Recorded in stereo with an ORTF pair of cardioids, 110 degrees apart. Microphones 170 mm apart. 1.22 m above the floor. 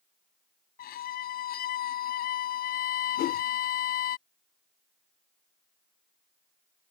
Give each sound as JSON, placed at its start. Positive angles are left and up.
{"t": 0.8, "sound": "a violin", "azimuth_deg": 65}
{"t": 3.2, "sound": "a whoosh", "azimuth_deg": 65}